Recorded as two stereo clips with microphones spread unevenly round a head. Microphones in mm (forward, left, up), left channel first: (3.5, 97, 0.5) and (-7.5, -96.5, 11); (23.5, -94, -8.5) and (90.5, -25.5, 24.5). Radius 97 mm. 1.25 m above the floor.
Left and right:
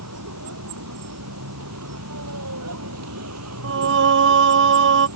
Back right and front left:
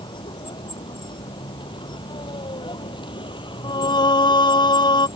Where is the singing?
120° right.